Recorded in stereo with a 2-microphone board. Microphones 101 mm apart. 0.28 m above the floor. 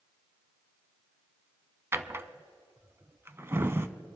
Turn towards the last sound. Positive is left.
turn(degrees=-25)  # may be behind; listen again after turning